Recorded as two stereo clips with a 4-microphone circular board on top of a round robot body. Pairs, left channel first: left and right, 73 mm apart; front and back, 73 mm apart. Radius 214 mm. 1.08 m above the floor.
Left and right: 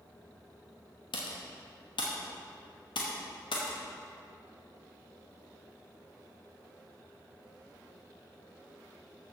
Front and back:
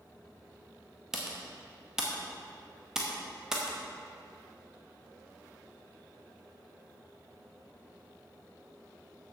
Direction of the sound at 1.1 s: 100° left.